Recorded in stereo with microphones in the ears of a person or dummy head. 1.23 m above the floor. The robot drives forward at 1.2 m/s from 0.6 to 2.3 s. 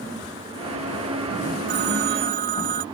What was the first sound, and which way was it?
A phone ringing, 60° right (ahead or behind).